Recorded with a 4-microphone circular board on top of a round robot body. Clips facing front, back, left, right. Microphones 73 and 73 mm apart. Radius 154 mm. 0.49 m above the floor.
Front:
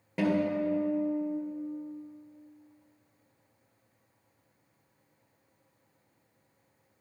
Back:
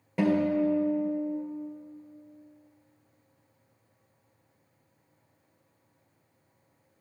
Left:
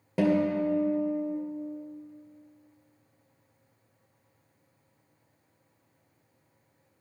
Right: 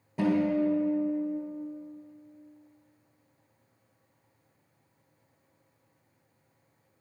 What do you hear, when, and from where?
0.2 s a guitar: 90° left, 1.9 m